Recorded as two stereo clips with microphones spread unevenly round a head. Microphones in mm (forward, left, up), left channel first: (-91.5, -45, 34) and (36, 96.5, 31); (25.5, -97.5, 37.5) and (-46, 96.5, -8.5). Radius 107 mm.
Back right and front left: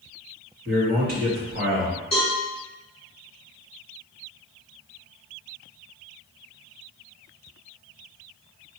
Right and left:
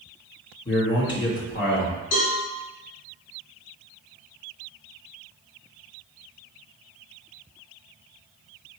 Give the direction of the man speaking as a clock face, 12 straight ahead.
12 o'clock.